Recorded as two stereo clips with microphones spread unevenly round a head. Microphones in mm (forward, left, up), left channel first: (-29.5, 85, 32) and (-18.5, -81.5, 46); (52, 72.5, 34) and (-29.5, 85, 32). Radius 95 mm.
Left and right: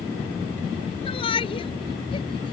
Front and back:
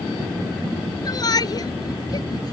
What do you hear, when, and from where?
1.1 s a shout: 30° left